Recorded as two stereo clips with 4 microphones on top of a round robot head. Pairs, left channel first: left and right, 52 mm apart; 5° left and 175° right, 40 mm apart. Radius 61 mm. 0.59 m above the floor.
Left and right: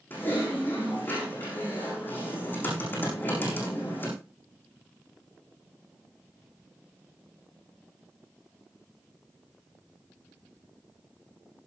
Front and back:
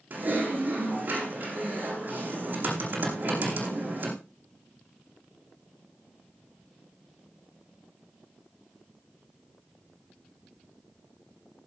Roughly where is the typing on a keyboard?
Behind left.